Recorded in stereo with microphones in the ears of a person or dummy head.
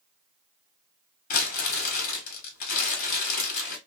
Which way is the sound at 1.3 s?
45° left (ahead or behind).